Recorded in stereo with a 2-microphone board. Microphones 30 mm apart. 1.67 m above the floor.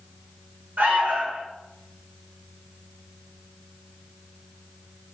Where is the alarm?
55° right (ahead or behind), 4.5 m.